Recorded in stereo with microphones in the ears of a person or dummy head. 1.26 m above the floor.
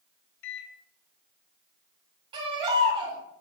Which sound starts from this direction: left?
A microwave, at 0.4 s.